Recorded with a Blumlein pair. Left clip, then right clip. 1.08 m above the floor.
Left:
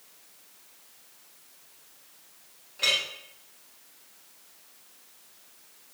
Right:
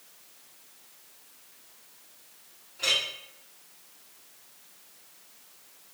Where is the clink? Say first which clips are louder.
Left 1 dB; 25° left, 1.4 m.